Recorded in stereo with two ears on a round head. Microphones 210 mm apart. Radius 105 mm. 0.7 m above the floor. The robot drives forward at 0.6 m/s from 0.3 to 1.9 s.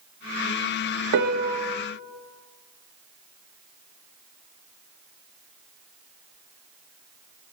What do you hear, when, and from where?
1.1 s a piano: 50° right (ahead or behind), 0.6 m; by 1.8 s 35° right (ahead or behind), 0.9 m